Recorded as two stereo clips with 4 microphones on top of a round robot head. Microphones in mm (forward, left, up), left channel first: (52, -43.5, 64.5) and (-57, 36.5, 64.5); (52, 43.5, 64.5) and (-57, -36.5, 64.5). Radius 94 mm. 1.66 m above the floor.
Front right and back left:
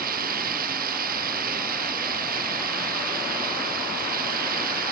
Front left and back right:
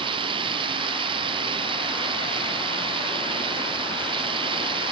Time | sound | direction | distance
0.0 | running water | 160° left | ?